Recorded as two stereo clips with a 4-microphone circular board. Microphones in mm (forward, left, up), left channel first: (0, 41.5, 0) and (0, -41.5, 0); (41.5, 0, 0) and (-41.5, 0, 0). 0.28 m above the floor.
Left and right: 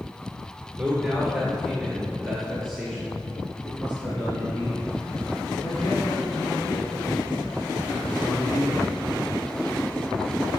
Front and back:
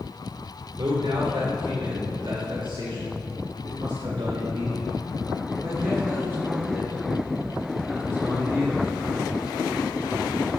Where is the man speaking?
170° right, 5 m; by 8.9 s 115° left, 6 m.